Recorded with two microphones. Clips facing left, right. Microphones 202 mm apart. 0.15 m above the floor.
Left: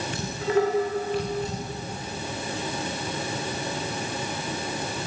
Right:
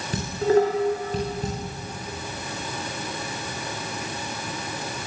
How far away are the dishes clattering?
About 9.5 m.